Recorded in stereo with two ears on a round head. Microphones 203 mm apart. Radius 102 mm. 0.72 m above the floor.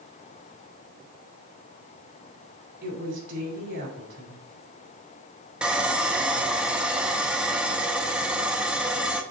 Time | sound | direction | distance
2.8 | a woman speaking | 55° right (ahead or behind) | 3 m
5.6 | sawing | 5° right (ahead or behind) | 0.7 m